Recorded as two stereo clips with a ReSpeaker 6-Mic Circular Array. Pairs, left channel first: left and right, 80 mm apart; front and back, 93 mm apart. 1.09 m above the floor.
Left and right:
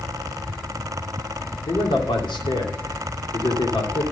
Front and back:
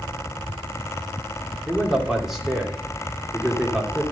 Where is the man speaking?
95° left, 2 m.